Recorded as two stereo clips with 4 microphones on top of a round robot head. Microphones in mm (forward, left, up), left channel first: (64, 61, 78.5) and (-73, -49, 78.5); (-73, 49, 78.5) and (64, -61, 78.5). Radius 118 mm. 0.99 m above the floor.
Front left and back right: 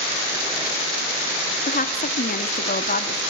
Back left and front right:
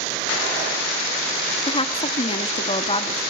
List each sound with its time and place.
1.7 s a woman speaking: 80° left, 2 m